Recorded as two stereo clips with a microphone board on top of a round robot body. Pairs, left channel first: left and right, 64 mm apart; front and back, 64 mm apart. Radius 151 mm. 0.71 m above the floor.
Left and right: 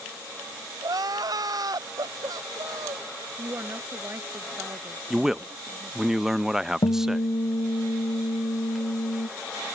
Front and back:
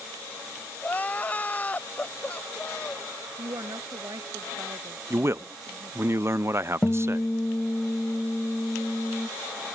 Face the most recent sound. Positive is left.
turn(degrees=80)